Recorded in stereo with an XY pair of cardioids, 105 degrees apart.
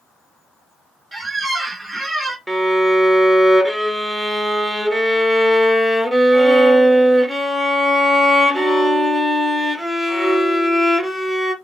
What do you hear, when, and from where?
1.1 s a squeak: 20° right, 0.9 m
2.5 s a violin: straight ahead, 0.8 m